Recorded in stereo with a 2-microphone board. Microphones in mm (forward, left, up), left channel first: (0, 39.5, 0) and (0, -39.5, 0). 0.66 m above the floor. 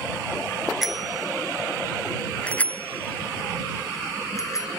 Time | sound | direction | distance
0.8 | a bicycle bell | centre (ahead or behind) | ?